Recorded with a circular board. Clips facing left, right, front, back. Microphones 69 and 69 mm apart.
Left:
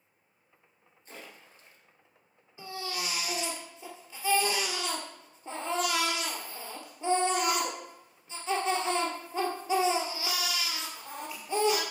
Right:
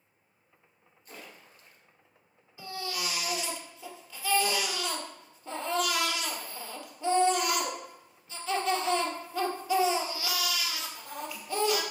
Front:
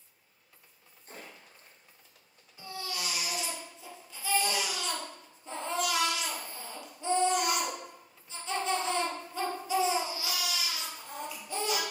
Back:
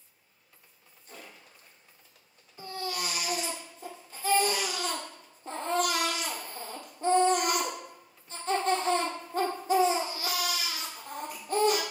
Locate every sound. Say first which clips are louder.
1.1 s a splash: even, front 1 dB; 35° left, 2.5 m
2.6 s a baby crying: right 1 dB, back 4 dB; 150° left, 2 m